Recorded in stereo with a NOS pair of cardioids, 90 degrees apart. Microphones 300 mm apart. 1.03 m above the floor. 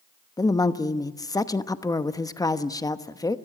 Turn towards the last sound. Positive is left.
turn(degrees=10)